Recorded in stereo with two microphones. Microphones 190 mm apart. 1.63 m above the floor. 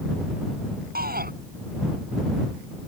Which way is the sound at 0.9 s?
55° right (ahead or behind).